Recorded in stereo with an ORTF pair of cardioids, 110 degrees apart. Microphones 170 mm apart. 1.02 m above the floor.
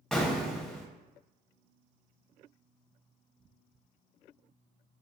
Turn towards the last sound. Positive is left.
turn(degrees=0)